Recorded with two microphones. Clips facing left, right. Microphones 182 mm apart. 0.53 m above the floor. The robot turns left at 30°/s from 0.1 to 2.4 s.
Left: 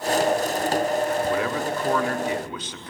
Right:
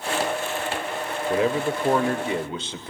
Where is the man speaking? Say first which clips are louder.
Right 2 dB; 25° right (ahead or behind), 1.2 m.